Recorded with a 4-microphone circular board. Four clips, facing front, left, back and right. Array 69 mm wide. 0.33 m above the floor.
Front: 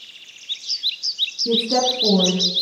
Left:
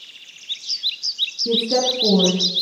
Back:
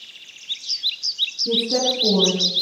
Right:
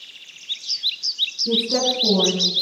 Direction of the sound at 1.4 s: 55° left.